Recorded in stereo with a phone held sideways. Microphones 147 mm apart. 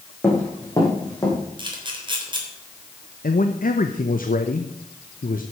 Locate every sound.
0.2 s running footsteps: 20° left (ahead or behind), 5 m; by 1.4 s 25° left (ahead or behind), 5.5 m
1.6 s a camera shutter: 35° right (ahead or behind), 3.5 m
3.2 s a man speaking: 70° left (ahead or behind), 0.9 m